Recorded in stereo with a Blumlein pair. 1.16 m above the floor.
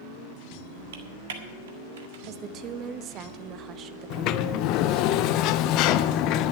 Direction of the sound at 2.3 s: 30° right.